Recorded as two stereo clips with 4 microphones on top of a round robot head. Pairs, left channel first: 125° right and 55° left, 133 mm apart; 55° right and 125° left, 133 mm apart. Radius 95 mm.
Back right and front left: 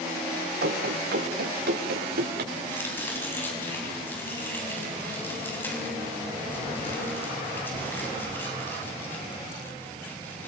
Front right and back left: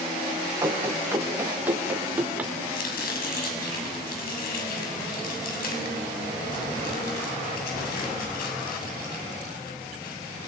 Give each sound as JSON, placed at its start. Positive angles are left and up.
{"t": 0.6, "sound": "running footsteps", "azimuth_deg": 50, "distance_m": 8.0}
{"t": 2.7, "sound": "chopping", "azimuth_deg": -50, "distance_m": 7.0}